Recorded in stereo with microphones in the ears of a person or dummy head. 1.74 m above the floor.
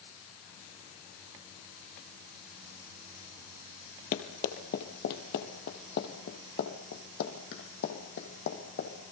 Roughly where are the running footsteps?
Left.